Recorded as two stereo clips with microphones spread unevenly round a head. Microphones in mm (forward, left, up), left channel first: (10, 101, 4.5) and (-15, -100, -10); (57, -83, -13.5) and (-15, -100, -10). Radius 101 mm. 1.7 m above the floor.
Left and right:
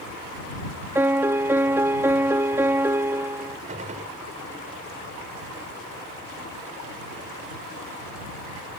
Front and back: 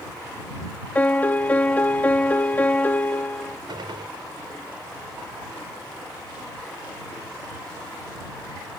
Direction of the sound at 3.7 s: 155° right.